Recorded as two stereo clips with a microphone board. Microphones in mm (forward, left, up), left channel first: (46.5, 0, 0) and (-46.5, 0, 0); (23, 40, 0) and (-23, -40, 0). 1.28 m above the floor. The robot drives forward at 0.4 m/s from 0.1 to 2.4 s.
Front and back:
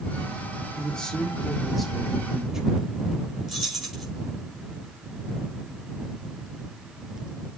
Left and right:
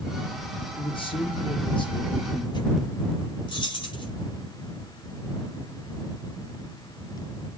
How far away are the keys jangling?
About 5 m.